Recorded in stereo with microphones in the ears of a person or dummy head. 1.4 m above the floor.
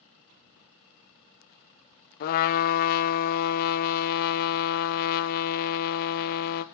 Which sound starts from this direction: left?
A trumpet, at 2.2 s.